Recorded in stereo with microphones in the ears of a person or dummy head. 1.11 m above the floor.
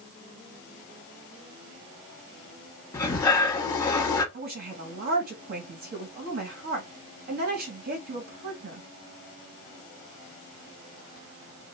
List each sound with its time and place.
2.9 s breathing: 10° left (ahead or behind), 1.0 m
4.3 s a woman speaking: 55° right (ahead or behind), 1.5 m